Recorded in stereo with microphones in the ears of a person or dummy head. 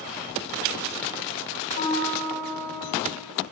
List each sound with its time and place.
1.8 s a piano: 70° left (ahead or behind), 3.5 m